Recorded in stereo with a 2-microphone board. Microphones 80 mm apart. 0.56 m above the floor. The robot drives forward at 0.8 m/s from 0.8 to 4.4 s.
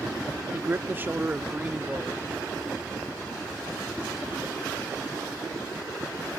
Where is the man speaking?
30° right (ahead or behind); by 2.2 s 15° right (ahead or behind).